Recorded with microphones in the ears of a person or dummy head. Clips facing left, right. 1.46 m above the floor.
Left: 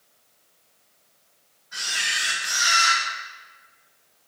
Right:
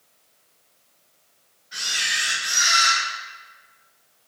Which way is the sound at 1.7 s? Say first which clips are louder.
Even; 25° right (ahead or behind).